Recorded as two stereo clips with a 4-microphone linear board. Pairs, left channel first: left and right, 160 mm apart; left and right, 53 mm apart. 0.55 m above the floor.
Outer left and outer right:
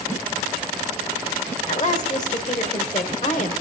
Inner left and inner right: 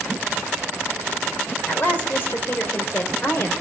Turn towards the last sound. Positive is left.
turn(degrees=50)  # may be behind; listen again after turning